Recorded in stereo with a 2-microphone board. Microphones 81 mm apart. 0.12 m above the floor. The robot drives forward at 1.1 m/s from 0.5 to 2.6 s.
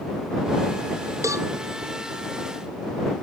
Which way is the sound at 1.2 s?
45° right (ahead or behind).